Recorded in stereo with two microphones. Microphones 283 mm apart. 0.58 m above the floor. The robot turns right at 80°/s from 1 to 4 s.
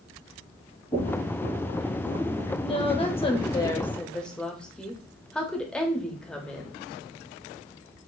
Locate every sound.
0.9 s knocking: 20° left (ahead or behind), 2.5 m; by 1.3 s 45° left (ahead or behind), 2.5 m
2.6 s a woman speaking: 20° left (ahead or behind), 0.8 m; by 6.8 s 5° left (ahead or behind), 0.8 m